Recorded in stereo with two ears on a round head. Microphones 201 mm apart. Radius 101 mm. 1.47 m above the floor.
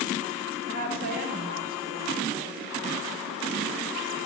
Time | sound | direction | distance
0.7 | a woman speaking | 40° right (ahead or behind) | 8 m